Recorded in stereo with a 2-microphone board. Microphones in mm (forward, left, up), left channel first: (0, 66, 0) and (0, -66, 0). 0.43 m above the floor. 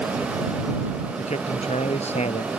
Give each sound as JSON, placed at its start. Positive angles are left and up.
{"t": 1.2, "sound": "a man speaking", "side_deg": 55}